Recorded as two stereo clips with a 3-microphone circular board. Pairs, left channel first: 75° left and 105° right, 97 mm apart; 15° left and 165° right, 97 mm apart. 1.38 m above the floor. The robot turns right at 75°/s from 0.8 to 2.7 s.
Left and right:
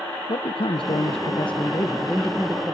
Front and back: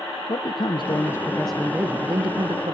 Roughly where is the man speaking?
Ahead left.